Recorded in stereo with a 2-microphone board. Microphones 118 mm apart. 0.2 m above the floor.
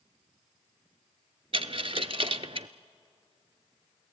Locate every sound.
1.5 s a dropped coin: 55° right (ahead or behind), 0.6 m